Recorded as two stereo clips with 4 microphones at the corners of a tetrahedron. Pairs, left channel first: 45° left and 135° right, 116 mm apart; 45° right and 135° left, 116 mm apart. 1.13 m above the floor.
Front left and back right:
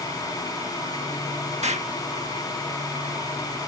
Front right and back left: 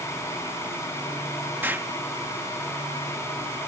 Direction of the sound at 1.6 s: 150° right.